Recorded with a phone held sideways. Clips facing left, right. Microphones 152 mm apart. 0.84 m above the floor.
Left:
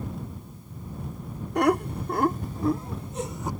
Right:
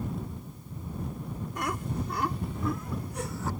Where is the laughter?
70° left (ahead or behind); by 3.5 s 15° left (ahead or behind).